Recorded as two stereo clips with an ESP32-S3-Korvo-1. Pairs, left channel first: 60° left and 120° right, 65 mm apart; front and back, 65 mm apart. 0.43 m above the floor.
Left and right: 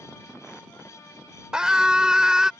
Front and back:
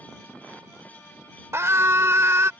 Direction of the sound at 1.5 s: 165° left.